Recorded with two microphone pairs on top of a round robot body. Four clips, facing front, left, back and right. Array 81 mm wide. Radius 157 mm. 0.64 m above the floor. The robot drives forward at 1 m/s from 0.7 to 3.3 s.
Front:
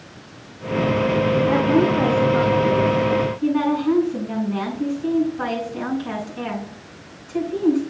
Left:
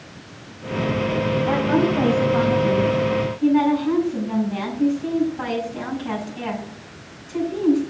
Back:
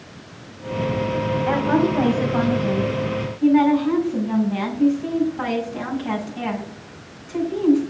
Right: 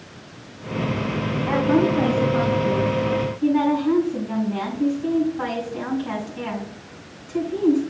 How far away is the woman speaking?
About 5 m.